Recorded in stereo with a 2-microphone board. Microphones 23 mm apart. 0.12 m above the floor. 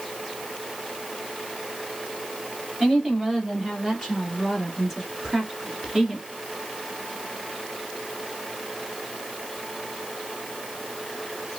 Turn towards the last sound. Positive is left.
turn(degrees=-25)  # may be behind; listen again after turning